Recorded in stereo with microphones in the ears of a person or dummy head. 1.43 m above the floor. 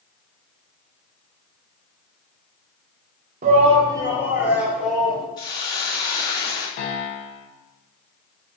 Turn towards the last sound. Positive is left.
turn(degrees=65)  # may be behind; listen again after turning